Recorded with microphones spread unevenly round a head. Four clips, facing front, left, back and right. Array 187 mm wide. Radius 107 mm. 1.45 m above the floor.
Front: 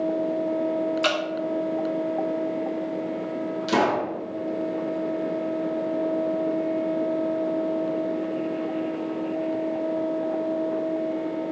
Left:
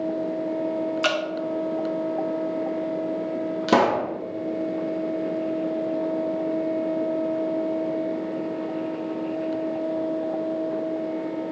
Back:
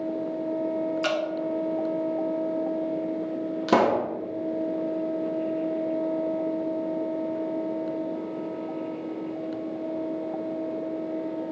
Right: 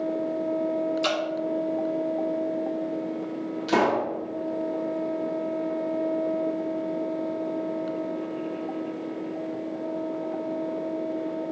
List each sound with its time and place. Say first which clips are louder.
1.0 s dripping: left 2 dB, front 2 dB; 55° left, 1.2 m
3.7 s a pop: left 3 dB, back 2 dB; 115° left, 0.8 m